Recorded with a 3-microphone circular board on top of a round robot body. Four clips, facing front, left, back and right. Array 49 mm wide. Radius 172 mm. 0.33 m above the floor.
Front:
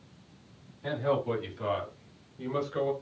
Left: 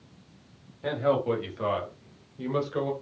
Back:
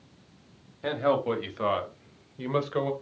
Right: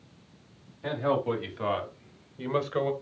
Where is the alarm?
No alarm in this recording.